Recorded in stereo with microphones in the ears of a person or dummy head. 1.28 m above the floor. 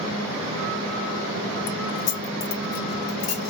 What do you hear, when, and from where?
1.7 s keys jangling: 65° left (ahead or behind), 1.0 m; by 3.5 s 55° left (ahead or behind), 1.1 m